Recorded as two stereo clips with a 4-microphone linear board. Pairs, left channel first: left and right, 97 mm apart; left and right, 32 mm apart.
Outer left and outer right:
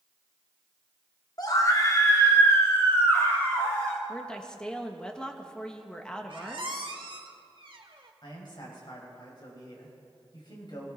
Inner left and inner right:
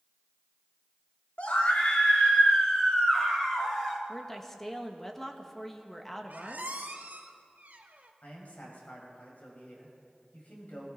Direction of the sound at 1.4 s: 45° left (ahead or behind).